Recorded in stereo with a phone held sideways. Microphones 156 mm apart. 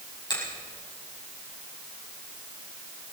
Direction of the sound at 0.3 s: 30° left (ahead or behind).